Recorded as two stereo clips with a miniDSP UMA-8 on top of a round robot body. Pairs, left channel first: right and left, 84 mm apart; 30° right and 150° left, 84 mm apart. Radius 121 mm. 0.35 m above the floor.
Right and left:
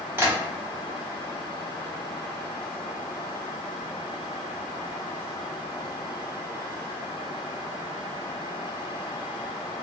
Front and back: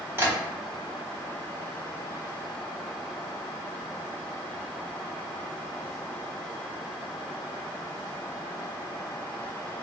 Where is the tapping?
125° left, 1.6 m.